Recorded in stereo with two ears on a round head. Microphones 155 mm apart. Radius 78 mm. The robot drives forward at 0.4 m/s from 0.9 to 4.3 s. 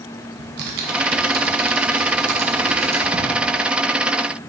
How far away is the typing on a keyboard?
About 1.0 m.